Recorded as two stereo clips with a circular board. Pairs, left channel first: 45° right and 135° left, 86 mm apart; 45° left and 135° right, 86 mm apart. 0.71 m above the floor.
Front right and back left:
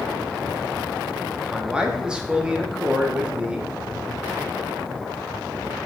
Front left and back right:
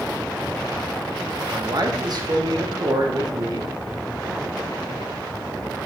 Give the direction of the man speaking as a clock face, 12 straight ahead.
5 o'clock.